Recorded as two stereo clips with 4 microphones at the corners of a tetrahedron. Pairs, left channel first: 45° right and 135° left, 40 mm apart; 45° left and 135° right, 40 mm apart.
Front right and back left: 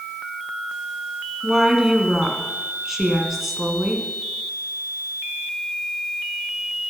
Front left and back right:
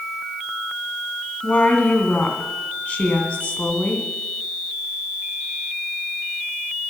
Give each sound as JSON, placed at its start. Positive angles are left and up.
{"t": 1.4, "sound": "a woman speaking", "azimuth_deg": 55, "distance_m": 2.0}